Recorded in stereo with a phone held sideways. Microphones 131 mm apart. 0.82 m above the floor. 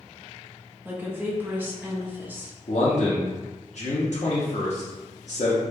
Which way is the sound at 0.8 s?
15° right (ahead or behind).